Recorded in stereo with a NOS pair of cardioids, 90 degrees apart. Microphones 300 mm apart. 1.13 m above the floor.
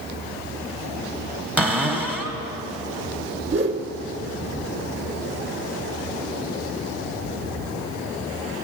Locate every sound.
1.6 s a cupboard door: 5° right, 1.5 m
3.5 s a whoosh: 40° right, 1.7 m